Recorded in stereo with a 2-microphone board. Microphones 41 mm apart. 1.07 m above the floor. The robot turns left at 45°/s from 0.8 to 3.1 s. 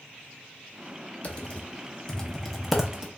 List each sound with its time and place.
1.2 s typing on a keyboard: 35° left (ahead or behind), 0.6 m; by 3.1 s 15° right (ahead or behind), 0.6 m